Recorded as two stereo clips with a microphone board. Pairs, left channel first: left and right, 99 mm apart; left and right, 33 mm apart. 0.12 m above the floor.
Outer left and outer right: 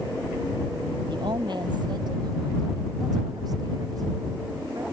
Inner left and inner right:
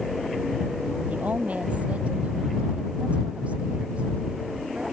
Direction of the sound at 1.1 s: 50° right (ahead or behind).